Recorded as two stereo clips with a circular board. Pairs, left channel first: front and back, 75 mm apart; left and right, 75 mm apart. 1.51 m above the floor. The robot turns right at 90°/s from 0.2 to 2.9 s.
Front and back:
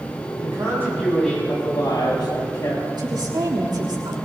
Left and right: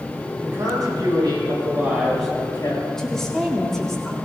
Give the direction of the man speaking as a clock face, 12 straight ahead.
5 o'clock.